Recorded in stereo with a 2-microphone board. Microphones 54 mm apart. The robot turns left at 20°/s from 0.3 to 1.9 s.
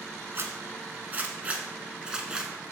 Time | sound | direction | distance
0.3 | a zipper | 50° right (ahead or behind) | 1.0 m